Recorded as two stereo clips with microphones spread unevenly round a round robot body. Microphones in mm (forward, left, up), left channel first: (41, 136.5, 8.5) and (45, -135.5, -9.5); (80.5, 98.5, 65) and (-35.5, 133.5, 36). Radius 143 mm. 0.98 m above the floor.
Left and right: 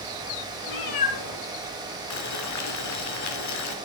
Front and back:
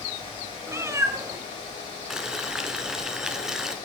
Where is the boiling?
75° left, 3 m.